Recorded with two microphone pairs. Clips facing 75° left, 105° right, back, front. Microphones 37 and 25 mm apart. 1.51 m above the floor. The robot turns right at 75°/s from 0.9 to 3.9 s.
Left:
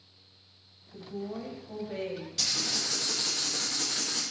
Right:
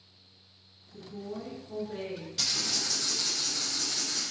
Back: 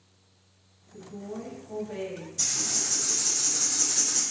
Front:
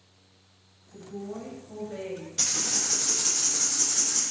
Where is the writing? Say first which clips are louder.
Even, front 1 dB; 20° right, 0.6 m; by 4.2 s 95° left, 0.6 m.